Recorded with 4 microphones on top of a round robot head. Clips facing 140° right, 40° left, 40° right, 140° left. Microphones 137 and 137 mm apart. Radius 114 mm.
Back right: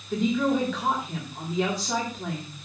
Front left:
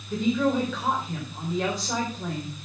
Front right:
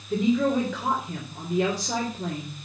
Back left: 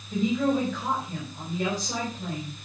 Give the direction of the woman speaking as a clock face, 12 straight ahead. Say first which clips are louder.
Even, front right 2 dB; 2 o'clock.